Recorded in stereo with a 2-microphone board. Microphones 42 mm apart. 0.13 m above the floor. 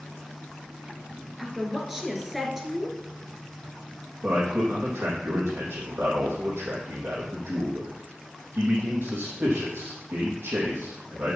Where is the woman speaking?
5° right (ahead or behind), 2.0 m.